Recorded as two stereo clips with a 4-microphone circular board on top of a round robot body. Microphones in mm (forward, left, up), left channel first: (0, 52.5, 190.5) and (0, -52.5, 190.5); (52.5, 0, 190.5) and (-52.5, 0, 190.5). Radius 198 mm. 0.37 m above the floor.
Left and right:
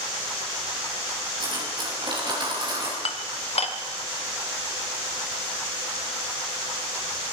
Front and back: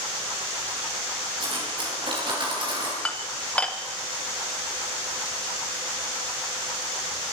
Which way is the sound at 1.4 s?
135° right.